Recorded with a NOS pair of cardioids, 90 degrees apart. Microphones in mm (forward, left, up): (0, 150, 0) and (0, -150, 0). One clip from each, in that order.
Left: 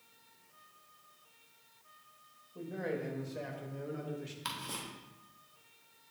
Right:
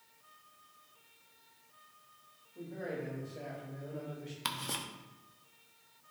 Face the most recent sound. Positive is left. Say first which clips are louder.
# right 4 dB
turn(degrees=-30)